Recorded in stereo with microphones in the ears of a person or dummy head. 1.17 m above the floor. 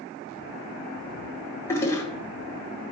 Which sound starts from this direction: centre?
A toilet flushing, at 1.7 s.